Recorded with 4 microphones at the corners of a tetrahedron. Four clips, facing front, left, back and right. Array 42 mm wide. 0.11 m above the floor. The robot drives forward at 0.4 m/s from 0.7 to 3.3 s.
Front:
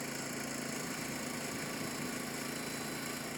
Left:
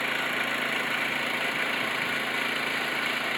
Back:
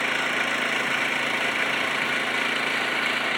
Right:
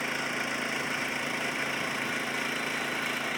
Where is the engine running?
160° left; by 3.4 s 165° left.